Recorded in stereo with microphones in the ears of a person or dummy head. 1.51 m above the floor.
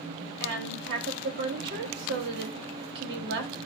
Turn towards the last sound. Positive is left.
turn(degrees=-65)  # may be behind; listen again after turning